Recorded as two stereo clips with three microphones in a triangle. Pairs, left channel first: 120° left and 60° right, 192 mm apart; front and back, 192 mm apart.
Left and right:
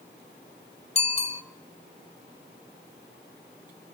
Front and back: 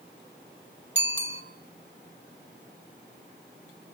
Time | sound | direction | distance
0.9 | a bicycle bell | 175° left | 2.5 m